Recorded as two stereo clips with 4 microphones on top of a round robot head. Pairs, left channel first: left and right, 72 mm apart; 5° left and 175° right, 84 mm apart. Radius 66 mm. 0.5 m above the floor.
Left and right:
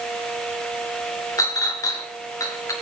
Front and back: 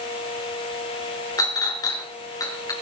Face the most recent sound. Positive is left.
turn(degrees=50)